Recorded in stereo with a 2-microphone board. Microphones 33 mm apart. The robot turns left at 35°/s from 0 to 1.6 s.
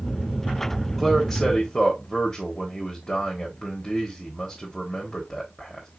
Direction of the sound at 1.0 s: 5° right (ahead or behind).